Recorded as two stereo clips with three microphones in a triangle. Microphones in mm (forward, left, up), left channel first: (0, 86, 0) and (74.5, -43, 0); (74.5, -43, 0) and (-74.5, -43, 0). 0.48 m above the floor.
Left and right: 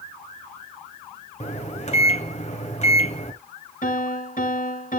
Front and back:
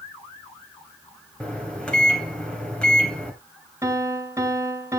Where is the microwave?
80° left, 2.5 m.